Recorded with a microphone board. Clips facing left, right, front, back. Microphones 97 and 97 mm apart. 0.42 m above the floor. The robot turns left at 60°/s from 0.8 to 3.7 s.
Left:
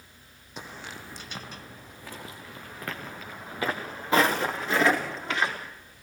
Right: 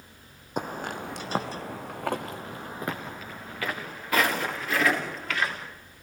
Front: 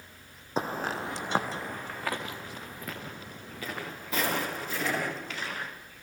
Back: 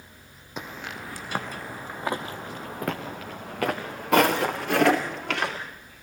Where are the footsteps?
55° right, 1.4 m; by 5.6 s 160° left, 5 m.